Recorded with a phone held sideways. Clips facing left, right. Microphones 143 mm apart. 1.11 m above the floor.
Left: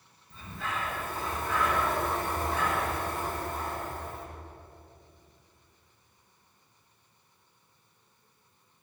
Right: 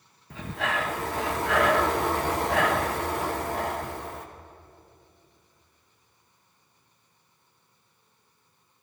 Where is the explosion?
No explosion in this recording.